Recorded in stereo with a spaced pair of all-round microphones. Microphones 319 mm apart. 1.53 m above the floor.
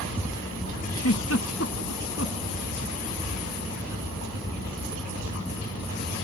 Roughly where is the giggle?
Left.